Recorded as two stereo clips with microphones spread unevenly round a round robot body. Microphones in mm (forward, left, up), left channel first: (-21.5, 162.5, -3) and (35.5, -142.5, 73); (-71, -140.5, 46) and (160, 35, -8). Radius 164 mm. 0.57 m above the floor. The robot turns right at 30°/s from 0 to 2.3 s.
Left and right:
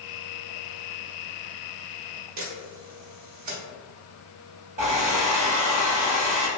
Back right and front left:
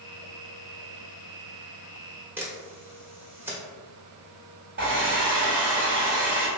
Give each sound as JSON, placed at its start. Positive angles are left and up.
{"t": 2.4, "sound": "a camera shutter", "azimuth_deg": -40, "distance_m": 1.2}
{"t": 4.8, "sound": "a hair dryer", "azimuth_deg": -5, "distance_m": 1.7}